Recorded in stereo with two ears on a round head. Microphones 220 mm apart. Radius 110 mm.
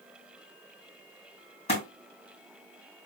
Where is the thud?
30° left (ahead or behind), 2 m.